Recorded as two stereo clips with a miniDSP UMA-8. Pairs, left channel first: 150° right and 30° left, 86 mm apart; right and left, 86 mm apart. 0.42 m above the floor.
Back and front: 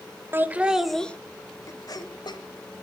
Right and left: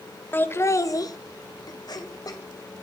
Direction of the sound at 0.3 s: 30° right.